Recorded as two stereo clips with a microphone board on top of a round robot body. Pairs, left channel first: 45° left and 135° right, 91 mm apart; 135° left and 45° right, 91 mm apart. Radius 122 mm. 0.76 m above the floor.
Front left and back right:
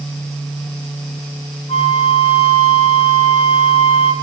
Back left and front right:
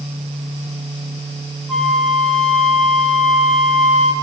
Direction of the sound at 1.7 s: 50° left.